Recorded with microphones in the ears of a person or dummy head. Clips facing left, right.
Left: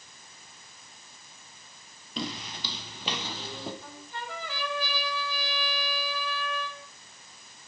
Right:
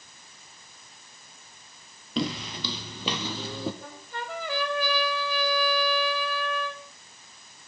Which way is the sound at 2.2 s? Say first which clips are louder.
Right 7 dB; 45° right (ahead or behind).